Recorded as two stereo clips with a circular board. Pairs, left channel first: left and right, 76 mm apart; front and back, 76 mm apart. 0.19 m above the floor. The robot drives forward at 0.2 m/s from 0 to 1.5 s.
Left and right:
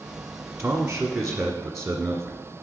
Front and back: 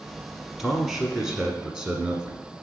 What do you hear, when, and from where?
0.6 s a man speaking: 110° right, 1.1 m; by 2.5 s 125° right, 1.2 m